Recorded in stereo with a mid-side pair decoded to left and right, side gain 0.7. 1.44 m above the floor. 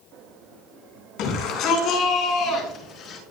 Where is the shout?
60° left, 5 m; by 3.2 s 45° left, 6.5 m.